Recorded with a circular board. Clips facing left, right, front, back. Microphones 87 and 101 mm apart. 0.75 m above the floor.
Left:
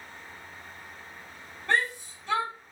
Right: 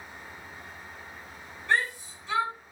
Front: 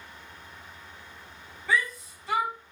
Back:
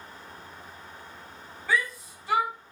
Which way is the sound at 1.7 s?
90° left.